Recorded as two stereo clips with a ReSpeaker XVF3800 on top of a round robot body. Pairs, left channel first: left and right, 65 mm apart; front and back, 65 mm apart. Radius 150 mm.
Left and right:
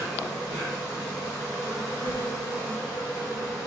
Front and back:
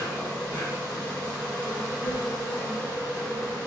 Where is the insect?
65° right, 1.0 m.